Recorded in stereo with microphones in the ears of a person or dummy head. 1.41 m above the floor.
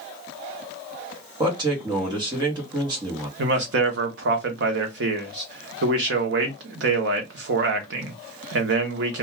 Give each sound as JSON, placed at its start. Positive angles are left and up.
{"t": 1.4, "sound": "a man speaking", "side_deg": -20, "distance_m": 0.9}
{"t": 3.4, "sound": "a man speaking", "side_deg": -65, "distance_m": 0.8}